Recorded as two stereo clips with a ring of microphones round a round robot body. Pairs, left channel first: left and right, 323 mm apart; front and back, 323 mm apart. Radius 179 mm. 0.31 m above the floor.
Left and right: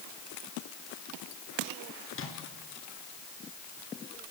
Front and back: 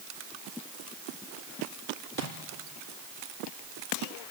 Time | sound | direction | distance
2.1 | a microwave | 40° left | 4.5 m